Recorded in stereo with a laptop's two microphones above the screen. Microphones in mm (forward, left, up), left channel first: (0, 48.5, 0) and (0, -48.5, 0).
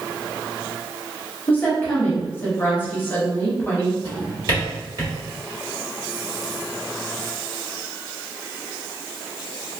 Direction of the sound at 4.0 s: 40° right (ahead or behind).